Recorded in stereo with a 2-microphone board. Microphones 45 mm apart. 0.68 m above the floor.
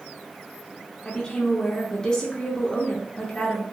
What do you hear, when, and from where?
1.1 s a woman speaking: 20° left (ahead or behind), 0.5 m